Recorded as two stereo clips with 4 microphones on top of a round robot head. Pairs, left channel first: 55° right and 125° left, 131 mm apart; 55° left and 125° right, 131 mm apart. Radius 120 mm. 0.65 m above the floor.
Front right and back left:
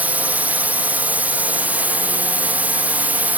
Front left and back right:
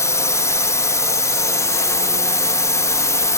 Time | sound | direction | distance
0.0 | a drone | 65° left | ?